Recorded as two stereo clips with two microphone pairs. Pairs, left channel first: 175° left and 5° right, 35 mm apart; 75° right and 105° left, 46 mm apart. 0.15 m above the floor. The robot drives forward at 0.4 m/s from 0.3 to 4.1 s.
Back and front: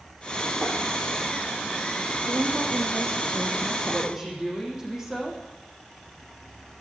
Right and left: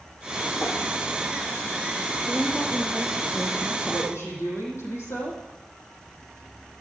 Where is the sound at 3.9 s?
80° right, 6.5 m.